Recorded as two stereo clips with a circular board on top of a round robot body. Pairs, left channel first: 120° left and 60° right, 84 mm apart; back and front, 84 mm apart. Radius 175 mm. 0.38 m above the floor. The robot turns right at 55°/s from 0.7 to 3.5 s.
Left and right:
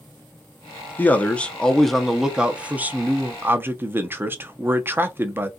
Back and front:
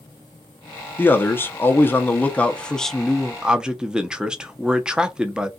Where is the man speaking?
155° left, 0.8 m; by 5.5 s 70° right, 0.8 m.